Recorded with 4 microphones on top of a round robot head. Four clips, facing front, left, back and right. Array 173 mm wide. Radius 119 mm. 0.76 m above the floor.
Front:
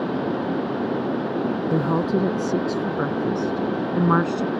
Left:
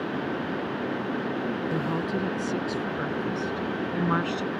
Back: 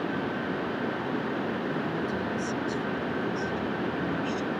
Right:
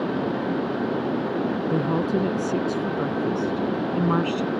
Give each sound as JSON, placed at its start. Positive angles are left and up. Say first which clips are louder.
{"t": 1.7, "sound": "a woman speaking", "louder": "right 5 dB, front 9 dB", "azimuth_deg": -25}